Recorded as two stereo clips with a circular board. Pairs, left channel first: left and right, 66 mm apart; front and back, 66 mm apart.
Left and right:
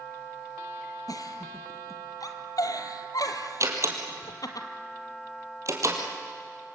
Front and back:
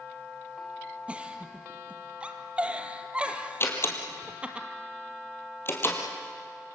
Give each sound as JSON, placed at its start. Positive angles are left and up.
{"t": 1.1, "sound": "a giggle", "azimuth_deg": 110, "distance_m": 1.6}
{"t": 3.6, "sound": "a door slam", "azimuth_deg": -50, "distance_m": 3.0}